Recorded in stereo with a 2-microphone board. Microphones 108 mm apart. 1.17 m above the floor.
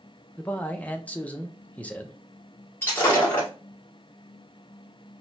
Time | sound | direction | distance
0.4 | a man speaking | 10° left (ahead or behind) | 0.6 m
2.8 | breaking glass | 20° left (ahead or behind) | 1.5 m